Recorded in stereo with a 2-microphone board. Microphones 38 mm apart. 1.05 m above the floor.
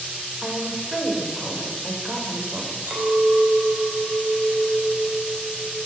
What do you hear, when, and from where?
0.4 s a woman speaking: 25° right (ahead or behind), 3.5 m
2.9 s a clink: 55° right (ahead or behind), 4 m